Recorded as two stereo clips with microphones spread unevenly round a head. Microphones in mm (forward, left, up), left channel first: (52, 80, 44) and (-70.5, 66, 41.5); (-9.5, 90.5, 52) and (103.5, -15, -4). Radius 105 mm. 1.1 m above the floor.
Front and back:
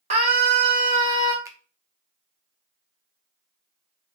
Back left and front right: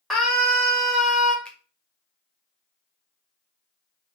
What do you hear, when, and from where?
0.1 s a scream: 130° right, 1.2 m
1.4 s a finger snap: 120° right, 0.6 m